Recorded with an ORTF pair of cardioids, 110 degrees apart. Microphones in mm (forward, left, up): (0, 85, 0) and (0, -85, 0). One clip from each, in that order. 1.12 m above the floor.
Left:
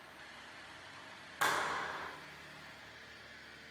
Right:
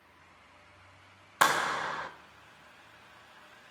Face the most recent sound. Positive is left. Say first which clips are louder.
# right 7 dB
turn(degrees=-60)